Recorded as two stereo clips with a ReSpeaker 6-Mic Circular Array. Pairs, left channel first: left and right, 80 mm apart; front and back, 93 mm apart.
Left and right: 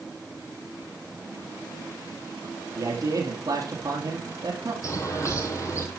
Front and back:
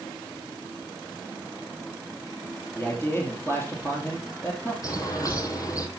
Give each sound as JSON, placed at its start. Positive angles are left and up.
{"t": 2.8, "sound": "a man speaking", "azimuth_deg": -55, "distance_m": 2.5}
{"t": 4.8, "sound": "a bird", "azimuth_deg": 45, "distance_m": 1.9}